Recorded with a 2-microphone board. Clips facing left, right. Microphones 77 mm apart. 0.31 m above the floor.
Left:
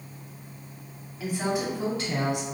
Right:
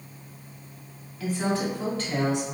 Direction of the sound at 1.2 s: 15° left (ahead or behind).